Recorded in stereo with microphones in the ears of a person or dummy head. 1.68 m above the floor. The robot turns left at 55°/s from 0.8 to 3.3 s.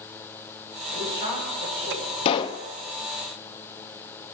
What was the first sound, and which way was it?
A woman speaking, 150° left.